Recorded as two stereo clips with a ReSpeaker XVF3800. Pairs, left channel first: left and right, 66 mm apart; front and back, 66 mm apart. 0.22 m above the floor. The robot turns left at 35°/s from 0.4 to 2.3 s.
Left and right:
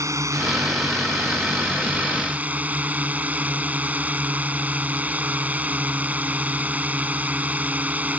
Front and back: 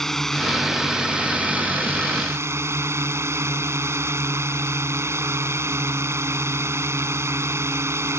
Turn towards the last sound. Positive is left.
turn(degrees=-150)